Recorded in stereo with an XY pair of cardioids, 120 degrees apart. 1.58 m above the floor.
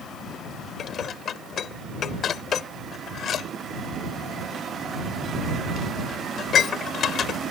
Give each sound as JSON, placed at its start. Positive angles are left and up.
{"t": 0.8, "sound": "dishes clattering", "azimuth_deg": 50}